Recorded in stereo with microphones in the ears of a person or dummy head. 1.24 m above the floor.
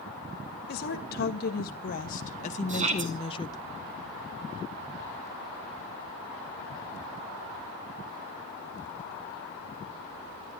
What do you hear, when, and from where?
0.7 s a woman speaking: 55° left (ahead or behind), 2 m; by 3.7 s 20° left (ahead or behind), 0.9 m
2.7 s a shout: 40° right (ahead or behind), 2.5 m